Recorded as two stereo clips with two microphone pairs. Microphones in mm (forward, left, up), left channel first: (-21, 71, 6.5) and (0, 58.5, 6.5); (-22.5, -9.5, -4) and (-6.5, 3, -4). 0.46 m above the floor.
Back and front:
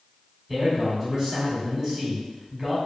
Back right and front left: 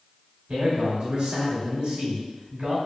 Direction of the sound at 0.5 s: 30° left.